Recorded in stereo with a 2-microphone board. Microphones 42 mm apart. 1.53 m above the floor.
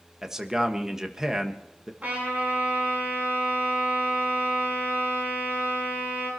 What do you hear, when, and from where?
0.2 s a man speaking: 15° right (ahead or behind), 1.4 m
2.0 s a trumpet: 40° right (ahead or behind), 8 m